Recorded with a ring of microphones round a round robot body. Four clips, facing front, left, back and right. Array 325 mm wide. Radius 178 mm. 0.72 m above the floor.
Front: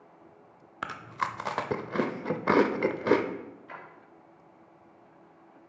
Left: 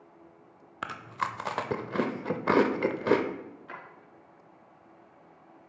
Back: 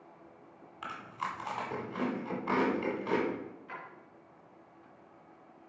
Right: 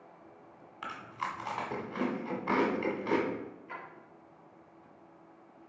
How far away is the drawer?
About 4.5 m.